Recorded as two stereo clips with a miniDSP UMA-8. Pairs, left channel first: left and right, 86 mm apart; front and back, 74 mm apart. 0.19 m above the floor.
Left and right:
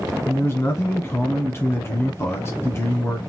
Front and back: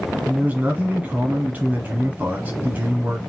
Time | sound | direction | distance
0.2 | a man speaking | 125° left | 1.4 m